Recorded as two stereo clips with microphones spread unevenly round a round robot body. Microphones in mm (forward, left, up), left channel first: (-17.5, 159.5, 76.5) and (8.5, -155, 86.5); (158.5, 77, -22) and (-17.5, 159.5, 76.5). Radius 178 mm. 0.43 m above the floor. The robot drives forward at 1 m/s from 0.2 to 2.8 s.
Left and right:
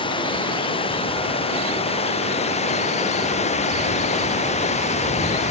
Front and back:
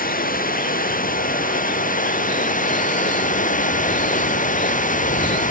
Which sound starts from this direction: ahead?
Running water, at 0.0 s.